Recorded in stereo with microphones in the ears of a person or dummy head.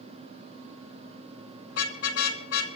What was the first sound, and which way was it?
A car horn, 80° left.